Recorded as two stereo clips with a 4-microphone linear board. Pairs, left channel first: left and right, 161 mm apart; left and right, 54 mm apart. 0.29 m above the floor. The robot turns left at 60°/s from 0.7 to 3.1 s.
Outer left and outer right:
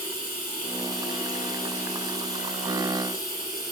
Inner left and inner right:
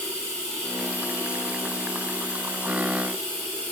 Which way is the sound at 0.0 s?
165° left.